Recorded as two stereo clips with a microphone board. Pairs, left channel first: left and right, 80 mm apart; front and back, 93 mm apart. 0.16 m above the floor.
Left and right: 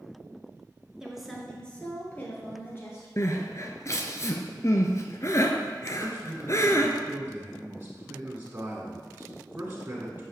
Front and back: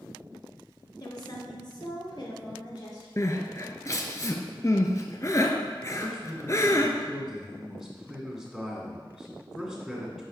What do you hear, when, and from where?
1.0 s a woman speaking: 10° right, 1.8 m; by 3.1 s 35° left, 4 m
3.2 s crying: 50° left, 0.9 m
5.9 s a man speaking: 90° right, 1.7 m